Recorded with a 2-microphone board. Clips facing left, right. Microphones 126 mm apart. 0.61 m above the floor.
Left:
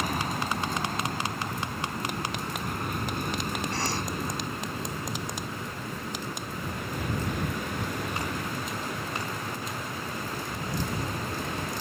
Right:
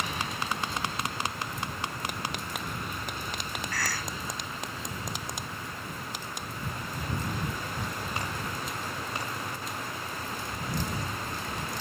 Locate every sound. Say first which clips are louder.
0.0 s an aircraft: left 4 dB; 45° left (ahead or behind); by 11.8 s 65° left (ahead or behind)
3.7 s a cough: left 4 dB; 30° left (ahead or behind)